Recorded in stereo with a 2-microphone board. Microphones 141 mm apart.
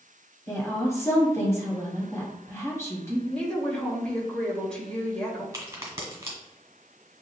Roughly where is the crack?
Centre.